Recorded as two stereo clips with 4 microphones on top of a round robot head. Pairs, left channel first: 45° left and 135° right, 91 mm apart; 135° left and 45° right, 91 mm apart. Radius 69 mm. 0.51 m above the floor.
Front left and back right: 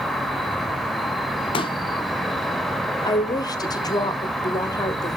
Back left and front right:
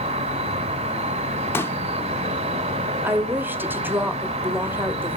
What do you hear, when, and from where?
0.0 s an insect: 45° right, 0.8 m
1.5 s a pop: 70° left, 0.5 m
3.0 s a woman speaking: 15° left, 1.0 m